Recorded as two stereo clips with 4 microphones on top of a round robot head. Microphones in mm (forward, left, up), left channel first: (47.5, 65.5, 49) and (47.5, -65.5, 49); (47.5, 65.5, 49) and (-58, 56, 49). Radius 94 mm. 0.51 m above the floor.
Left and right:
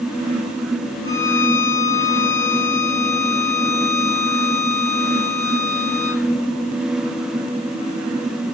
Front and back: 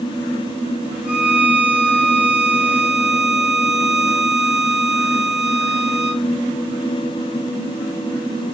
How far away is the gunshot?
No gunshot in this recording.